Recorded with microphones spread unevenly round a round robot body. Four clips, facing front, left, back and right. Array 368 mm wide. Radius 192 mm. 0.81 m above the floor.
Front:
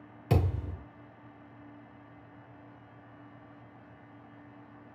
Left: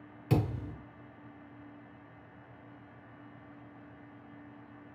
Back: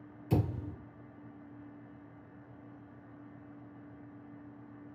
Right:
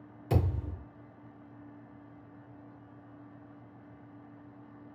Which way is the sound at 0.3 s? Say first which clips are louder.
Left 1 dB, front 2 dB; 10° left.